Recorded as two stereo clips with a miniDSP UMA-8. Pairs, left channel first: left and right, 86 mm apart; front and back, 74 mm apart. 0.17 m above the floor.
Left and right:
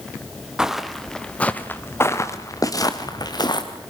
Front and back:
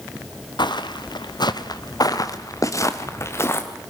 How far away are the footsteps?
About 1.5 m.